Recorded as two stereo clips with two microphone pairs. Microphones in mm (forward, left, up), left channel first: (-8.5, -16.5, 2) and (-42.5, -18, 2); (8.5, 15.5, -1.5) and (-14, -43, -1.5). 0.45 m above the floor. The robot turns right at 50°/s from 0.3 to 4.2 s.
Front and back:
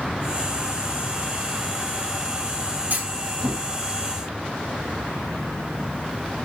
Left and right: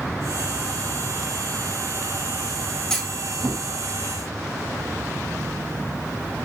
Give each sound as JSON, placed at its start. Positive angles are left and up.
{"t": 2.9, "sound": "a clunk", "azimuth_deg": 150, "distance_m": 3.0}